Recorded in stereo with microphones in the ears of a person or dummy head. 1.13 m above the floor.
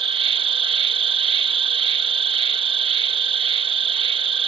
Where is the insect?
30° right (ahead or behind).